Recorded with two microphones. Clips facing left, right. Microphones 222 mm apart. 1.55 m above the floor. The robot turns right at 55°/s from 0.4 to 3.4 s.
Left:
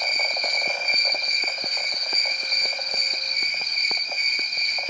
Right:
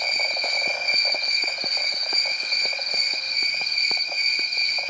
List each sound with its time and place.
0.0 s an insect: 155° right, 1.8 m; by 4.9 s 10° left, 1.8 m